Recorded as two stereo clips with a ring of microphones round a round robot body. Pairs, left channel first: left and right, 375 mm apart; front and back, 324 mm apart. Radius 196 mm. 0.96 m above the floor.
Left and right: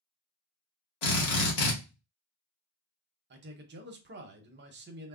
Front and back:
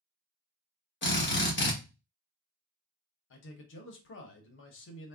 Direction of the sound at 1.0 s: 60° left.